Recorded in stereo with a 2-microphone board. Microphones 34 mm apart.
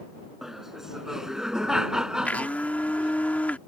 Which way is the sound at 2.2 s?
50° left (ahead or behind).